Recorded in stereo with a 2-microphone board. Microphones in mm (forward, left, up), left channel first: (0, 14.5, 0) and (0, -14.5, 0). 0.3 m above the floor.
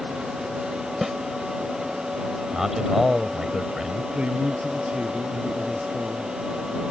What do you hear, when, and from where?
1.0 s a snare drum: 15° right (ahead or behind)
2.5 s a man speaking: 15° right (ahead or behind)
4.1 s a man speaking: 40° right (ahead or behind)